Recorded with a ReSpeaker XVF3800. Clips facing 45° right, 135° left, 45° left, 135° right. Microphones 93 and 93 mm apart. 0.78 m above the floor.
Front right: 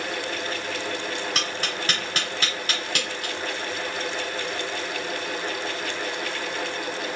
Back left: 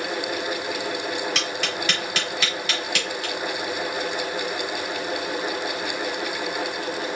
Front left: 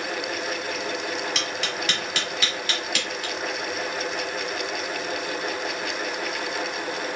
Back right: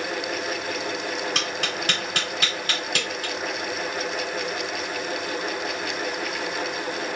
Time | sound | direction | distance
1.4 | tapping | 90° right | 1.9 m